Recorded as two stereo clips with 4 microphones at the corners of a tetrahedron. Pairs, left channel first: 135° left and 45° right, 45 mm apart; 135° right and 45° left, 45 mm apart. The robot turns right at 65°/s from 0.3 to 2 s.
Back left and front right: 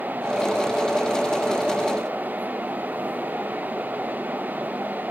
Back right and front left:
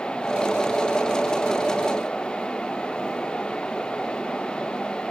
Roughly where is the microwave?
No microwave in this recording.